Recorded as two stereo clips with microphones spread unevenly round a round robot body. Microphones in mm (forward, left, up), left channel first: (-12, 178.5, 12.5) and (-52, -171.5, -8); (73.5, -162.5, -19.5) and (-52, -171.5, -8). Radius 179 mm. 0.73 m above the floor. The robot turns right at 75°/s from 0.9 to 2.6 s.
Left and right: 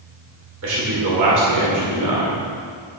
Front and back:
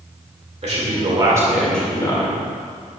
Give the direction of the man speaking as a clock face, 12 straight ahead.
5 o'clock.